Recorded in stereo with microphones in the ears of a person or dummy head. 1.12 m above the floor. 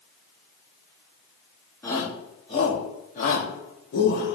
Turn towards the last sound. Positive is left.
turn(degrees=60)  # may be behind; listen again after turning